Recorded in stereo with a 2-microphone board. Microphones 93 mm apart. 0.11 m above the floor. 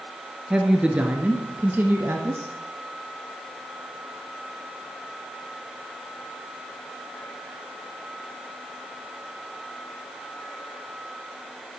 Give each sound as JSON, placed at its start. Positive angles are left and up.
{"t": 0.5, "sound": "a woman speaking", "side_deg": -10, "distance_m": 1.4}